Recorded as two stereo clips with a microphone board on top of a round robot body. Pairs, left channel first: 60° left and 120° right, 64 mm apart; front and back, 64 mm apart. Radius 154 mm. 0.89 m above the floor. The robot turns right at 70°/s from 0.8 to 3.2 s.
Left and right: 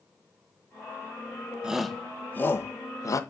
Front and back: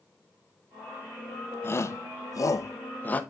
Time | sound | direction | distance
1.6 | a shout | 45° right | 1.2 m